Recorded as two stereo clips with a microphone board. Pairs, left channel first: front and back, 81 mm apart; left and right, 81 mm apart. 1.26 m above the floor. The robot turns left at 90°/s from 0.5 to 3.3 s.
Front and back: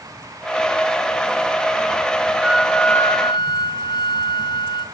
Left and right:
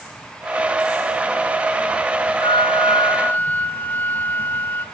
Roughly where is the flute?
Left.